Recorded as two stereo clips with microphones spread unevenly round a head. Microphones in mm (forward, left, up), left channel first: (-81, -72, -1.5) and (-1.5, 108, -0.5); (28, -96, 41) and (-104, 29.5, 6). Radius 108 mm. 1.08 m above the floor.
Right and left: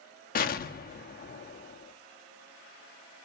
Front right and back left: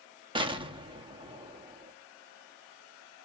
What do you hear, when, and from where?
0.3 s an explosion: 155° right, 1.0 m